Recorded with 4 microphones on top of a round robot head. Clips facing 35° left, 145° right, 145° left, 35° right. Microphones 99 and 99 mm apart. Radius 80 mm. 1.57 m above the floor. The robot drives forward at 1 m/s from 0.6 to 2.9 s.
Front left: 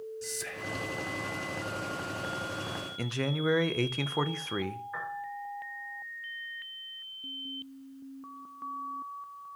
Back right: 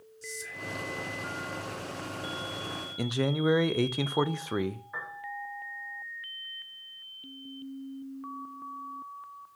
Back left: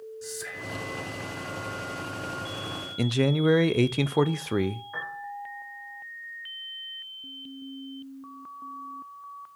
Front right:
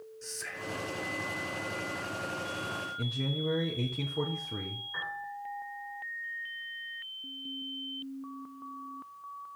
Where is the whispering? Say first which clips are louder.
Front left 3 dB, back left 3 dB; 65° left, 0.9 m; by 0.9 s 85° left, 0.9 m.